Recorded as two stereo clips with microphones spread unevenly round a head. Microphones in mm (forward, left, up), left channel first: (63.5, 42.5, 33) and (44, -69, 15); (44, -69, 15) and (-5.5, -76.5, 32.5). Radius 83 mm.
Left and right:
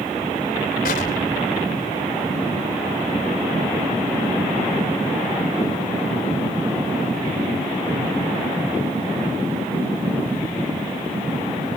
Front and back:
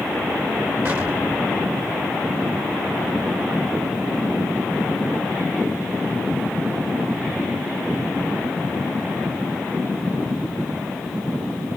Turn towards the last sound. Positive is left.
turn(degrees=115)